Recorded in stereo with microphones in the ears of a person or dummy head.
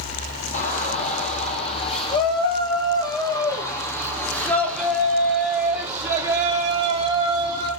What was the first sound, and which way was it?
A shout, 45° left (ahead or behind).